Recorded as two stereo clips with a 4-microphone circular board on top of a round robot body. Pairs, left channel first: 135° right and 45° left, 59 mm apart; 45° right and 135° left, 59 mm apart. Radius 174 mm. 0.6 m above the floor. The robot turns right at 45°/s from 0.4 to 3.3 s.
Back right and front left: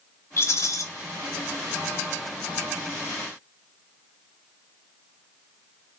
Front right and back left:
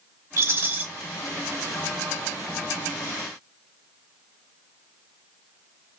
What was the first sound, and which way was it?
A rattle, straight behind.